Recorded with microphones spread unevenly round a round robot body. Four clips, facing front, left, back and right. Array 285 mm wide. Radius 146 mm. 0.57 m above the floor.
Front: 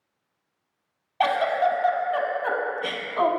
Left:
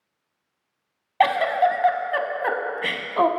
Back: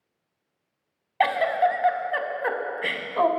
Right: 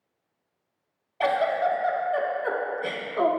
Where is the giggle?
100° left, 0.6 m.